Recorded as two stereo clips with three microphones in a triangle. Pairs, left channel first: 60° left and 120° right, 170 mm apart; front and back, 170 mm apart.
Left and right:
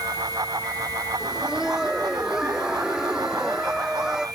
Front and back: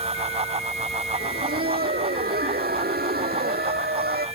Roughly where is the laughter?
Behind left.